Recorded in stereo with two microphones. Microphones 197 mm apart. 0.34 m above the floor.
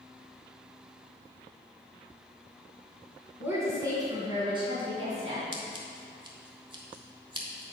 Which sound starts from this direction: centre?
A woman speaking, at 3.4 s.